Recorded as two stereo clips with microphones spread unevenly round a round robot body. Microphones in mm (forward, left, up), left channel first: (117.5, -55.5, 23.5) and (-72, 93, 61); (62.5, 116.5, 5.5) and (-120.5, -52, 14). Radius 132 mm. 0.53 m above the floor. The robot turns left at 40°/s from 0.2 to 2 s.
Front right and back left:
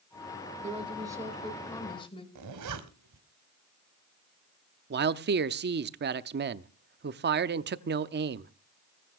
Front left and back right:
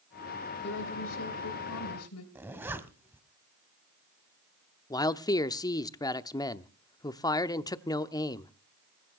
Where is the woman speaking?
80° left, 3 m; by 2.2 s 25° left, 3 m.